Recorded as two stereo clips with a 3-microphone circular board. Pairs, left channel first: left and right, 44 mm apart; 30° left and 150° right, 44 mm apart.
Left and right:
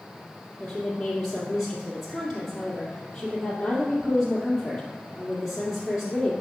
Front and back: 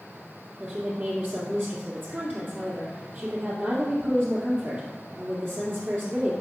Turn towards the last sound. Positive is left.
turn(degrees=-170)